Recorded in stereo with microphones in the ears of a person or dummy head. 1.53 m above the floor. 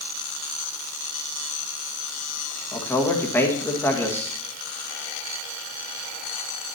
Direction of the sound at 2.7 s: 10° left (ahead or behind).